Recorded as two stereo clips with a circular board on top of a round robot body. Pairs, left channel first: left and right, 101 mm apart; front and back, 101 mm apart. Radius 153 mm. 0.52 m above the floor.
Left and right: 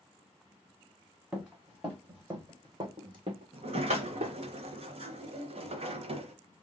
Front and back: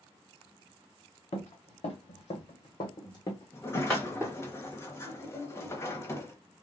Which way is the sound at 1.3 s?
5° right.